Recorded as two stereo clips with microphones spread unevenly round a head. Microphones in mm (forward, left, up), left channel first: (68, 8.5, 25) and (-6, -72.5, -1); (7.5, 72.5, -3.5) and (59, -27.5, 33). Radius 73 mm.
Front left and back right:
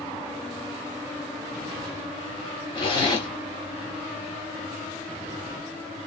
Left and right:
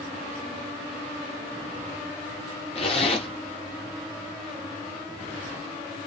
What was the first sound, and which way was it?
A zipper, 75° left.